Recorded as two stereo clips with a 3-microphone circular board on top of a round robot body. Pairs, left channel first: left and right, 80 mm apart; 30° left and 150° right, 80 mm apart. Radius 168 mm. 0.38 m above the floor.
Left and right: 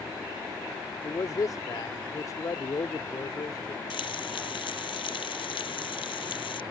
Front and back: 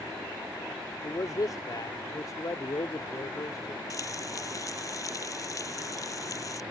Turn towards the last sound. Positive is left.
turn(degrees=80)